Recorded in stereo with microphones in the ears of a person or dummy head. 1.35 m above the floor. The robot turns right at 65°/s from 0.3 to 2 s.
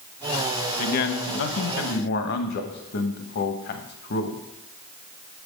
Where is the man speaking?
55° left, 1.2 m; by 4.4 s 130° left, 1.2 m.